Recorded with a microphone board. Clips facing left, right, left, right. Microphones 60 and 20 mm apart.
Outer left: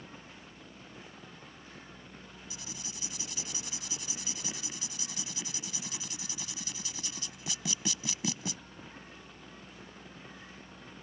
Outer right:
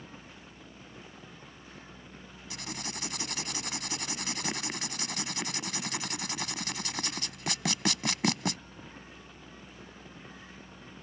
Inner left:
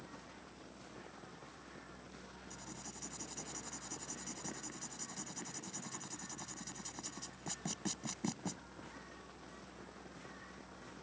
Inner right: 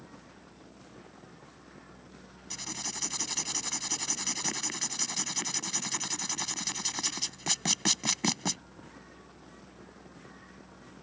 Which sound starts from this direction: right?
Writing, at 2.5 s.